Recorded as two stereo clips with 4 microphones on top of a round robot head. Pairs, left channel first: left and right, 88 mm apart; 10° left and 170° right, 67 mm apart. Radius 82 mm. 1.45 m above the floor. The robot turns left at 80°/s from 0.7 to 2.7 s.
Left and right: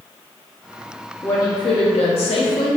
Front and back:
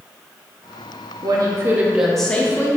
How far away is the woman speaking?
About 0.7 m.